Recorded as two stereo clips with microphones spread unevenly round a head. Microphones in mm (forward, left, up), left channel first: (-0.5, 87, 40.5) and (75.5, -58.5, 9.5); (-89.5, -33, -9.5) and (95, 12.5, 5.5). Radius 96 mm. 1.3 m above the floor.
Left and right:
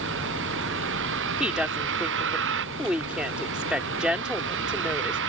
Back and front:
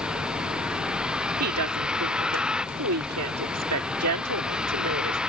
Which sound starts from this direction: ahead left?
A woman speaking, at 1.4 s.